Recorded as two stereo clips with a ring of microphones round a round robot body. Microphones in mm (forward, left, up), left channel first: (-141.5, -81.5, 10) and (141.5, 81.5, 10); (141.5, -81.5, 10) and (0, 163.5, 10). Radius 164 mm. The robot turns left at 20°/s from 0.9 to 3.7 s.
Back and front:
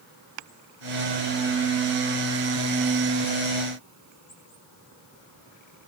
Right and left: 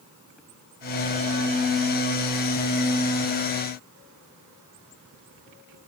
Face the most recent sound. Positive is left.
No sound to turn to.